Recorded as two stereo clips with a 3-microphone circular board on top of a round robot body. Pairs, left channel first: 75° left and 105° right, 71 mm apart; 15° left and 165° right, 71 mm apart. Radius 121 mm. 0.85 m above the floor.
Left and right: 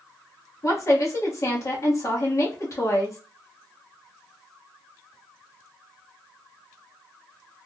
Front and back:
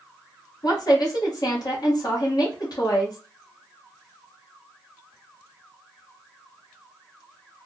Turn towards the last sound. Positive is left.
turn(degrees=35)